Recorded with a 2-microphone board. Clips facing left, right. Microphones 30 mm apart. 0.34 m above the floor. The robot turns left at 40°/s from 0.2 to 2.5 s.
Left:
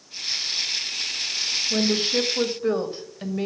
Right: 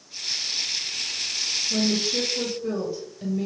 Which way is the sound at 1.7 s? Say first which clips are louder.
Left 2 dB; 135° left.